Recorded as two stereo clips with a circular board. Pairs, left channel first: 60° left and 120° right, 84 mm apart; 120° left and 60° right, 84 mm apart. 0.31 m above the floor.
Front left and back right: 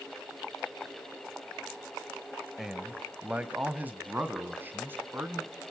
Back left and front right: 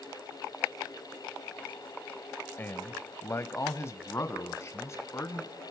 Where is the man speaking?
160° left, 0.9 m; by 5.5 s 175° left, 3 m.